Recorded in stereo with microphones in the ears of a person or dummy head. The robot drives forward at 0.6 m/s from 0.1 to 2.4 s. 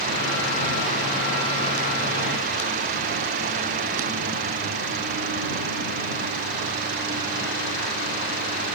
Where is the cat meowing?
I don't hear a cat meowing.